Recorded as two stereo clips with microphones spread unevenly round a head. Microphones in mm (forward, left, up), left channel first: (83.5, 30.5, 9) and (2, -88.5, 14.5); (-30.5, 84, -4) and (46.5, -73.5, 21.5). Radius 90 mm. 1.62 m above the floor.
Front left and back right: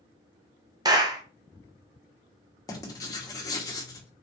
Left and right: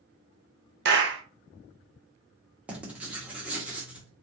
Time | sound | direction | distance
0.8 | a clap | 65° right | 1.0 m
2.7 | writing | 5° left | 1.2 m